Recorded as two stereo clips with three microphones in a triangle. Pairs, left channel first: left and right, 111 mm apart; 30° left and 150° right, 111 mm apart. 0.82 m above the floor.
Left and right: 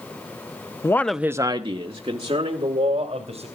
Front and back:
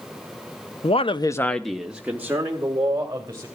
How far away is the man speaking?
About 0.8 m.